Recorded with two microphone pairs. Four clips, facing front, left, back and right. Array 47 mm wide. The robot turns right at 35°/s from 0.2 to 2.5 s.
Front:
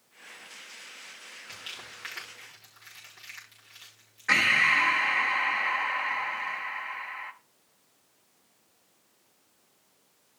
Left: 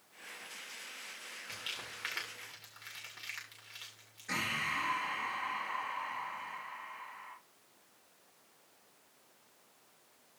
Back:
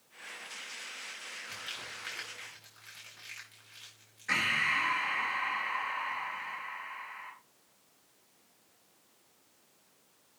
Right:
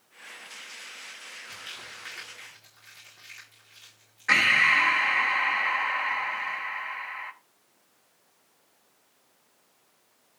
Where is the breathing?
60° right, 0.7 m.